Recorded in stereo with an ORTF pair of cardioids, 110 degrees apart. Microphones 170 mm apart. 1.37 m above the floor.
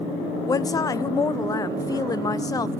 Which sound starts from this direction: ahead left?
A woman speaking, at 0.5 s.